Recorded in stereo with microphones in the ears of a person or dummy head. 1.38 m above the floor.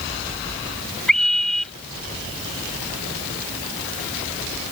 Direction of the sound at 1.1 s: 5° left (ahead or behind).